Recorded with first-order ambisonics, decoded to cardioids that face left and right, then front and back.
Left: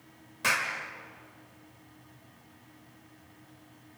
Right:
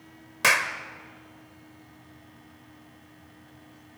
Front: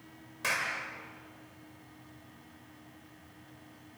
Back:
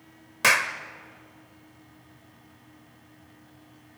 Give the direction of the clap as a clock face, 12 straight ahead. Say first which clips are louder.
Right 6 dB, back 10 dB; 5 o'clock.